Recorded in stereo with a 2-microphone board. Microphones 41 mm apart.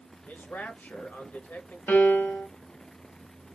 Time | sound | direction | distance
0.3 | a man speaking | 45° left (ahead or behind) | 1.0 m
1.9 | a piano | 60° left (ahead or behind) | 1.2 m